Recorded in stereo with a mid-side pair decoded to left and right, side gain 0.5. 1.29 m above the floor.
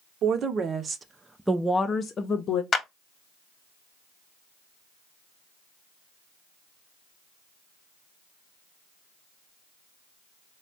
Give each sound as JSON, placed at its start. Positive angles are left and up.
{"t": 0.2, "sound": "a woman speaking", "azimuth_deg": -60, "distance_m": 0.9}
{"t": 2.7, "sound": "a clap", "azimuth_deg": 35, "distance_m": 1.1}